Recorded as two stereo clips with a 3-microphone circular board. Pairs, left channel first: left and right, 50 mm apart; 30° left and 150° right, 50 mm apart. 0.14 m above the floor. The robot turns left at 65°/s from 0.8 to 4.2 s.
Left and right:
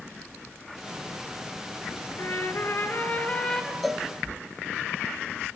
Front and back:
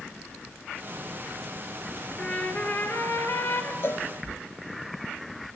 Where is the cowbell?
Straight ahead, 0.9 m; by 4.1 s 15° right, 0.9 m.